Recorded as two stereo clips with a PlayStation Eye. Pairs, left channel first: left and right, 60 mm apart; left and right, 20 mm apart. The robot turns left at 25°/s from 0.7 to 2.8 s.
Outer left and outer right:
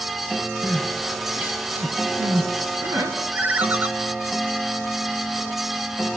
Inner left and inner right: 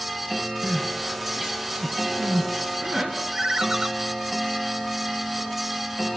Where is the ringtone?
30° right (ahead or behind), 1.0 m.